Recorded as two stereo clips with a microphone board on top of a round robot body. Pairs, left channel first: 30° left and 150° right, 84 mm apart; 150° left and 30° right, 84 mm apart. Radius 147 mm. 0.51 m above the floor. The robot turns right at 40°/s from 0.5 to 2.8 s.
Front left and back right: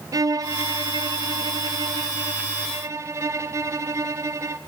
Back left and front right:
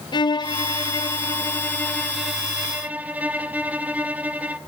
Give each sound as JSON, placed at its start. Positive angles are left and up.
{"t": 0.1, "sound": "a violin", "azimuth_deg": 170, "distance_m": 0.9}